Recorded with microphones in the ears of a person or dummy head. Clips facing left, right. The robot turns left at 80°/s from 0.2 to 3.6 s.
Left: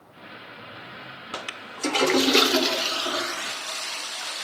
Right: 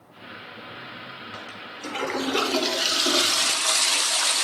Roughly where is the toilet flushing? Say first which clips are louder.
Left 2 dB; left.